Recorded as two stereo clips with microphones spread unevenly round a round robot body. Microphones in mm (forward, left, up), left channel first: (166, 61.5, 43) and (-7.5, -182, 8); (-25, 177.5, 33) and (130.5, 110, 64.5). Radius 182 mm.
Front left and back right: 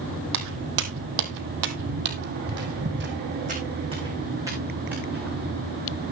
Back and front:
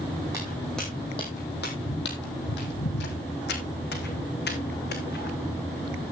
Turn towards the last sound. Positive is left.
turn(degrees=145)